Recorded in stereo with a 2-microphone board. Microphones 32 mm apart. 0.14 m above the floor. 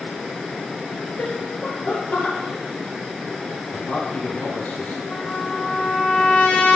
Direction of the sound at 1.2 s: 55° left (ahead or behind).